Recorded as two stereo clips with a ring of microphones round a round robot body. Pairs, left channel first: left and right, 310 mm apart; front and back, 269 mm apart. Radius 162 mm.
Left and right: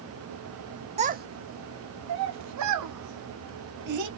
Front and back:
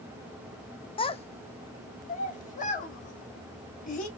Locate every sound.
1.0 s a child speaking: 45° right, 0.6 m; by 4.1 s 65° right, 2 m